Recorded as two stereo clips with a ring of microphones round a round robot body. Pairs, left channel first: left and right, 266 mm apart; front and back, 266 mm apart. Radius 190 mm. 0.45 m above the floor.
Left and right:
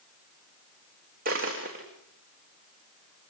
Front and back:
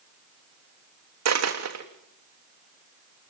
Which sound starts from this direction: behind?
A dropped coin, at 1.2 s.